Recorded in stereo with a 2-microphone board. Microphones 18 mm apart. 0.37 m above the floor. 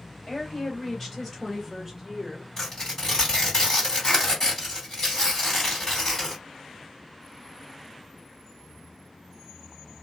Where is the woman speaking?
35° left (ahead or behind), 1.5 m; by 2.5 s 20° right (ahead or behind), 1.2 m.